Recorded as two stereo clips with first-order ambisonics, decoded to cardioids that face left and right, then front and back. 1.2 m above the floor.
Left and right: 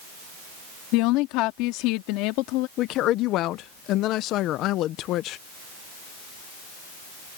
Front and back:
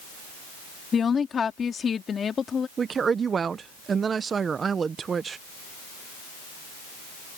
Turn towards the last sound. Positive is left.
turn(degrees=115)